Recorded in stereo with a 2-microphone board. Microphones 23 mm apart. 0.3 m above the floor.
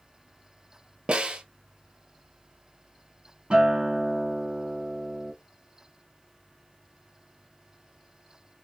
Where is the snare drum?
55° right (ahead or behind), 1.0 m.